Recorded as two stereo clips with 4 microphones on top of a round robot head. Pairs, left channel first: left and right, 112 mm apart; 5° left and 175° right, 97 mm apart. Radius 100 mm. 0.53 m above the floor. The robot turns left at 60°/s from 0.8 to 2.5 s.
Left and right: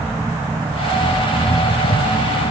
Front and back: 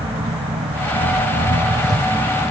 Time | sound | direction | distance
0.0 | an engine running | 160° right | ?